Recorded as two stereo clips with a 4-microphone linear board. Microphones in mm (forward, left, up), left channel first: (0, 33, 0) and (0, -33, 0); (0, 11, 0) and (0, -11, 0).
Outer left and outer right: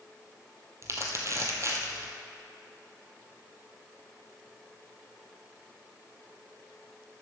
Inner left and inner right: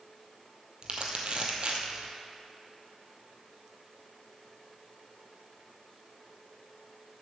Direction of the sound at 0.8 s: 45° right (ahead or behind).